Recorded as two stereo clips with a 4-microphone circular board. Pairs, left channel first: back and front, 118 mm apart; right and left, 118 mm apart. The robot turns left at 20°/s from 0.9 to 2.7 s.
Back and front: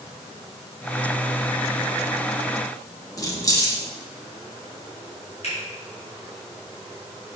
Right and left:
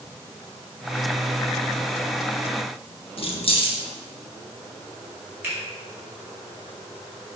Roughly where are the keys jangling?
Behind right.